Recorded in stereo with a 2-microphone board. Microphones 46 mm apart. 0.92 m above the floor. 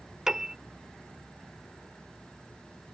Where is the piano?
15° right (ahead or behind).